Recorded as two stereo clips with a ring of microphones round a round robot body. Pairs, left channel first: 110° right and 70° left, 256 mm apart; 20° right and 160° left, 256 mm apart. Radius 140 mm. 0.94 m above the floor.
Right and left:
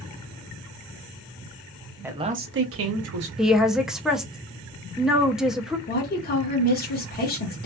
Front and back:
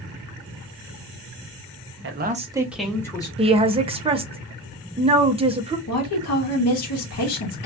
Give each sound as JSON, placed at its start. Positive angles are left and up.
{"t": 2.0, "sound": "a man speaking", "azimuth_deg": 150, "distance_m": 0.7}
{"t": 3.4, "sound": "a woman speaking", "azimuth_deg": 155, "distance_m": 0.5}
{"t": 5.9, "sound": "a woman speaking", "azimuth_deg": -55, "distance_m": 0.9}